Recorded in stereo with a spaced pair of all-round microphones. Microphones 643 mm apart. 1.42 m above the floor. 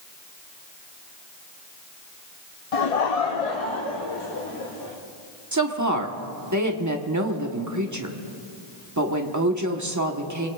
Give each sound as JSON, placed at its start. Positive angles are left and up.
{"t": 2.7, "sound": "laughter", "side_deg": 60, "distance_m": 0.6}
{"t": 5.5, "sound": "a woman speaking", "side_deg": -25, "distance_m": 1.2}